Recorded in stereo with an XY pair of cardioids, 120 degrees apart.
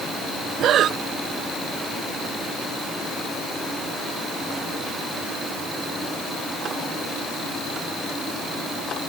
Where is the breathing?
55° right.